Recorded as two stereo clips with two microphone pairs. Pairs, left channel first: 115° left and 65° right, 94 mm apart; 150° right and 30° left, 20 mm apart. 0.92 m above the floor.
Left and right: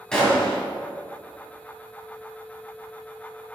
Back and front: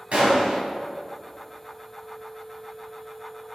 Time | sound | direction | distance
0.1 | a gunshot | 35° left | 1.9 m